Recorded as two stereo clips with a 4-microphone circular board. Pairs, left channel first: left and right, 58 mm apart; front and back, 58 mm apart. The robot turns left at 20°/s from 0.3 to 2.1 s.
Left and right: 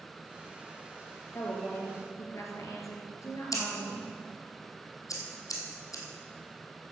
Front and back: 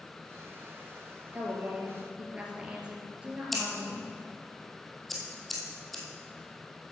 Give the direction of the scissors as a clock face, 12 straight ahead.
9 o'clock.